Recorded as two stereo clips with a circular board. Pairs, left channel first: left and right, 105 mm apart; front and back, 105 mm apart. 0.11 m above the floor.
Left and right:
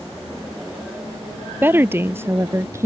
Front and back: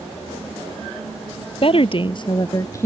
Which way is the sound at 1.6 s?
20° right.